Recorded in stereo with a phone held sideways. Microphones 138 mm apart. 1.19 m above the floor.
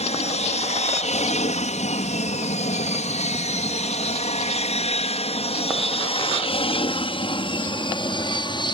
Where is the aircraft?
55° left (ahead or behind); by 8.7 s 35° left (ahead or behind).